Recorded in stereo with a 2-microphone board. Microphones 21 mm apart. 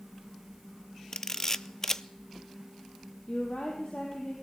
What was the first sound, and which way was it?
A camera shutter, 25° left (ahead or behind).